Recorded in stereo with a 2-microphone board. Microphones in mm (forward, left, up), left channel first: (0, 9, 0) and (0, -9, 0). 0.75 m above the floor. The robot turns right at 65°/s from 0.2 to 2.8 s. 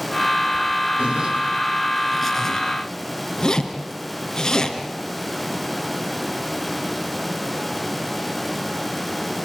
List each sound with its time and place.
1.0 s a zipper: 70° right (ahead or behind), 2.5 m; by 4.8 s 45° left (ahead or behind), 2.5 m